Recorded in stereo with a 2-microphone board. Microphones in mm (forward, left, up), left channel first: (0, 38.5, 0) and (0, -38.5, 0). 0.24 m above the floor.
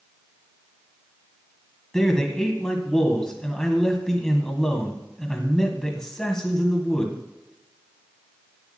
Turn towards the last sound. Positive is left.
turn(degrees=10)  # may be behind; listen again after turning